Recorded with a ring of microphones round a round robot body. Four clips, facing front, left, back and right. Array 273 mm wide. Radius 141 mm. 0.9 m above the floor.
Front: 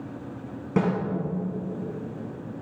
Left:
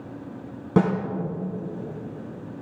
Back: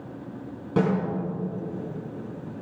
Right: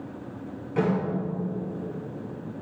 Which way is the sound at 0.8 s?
80° left.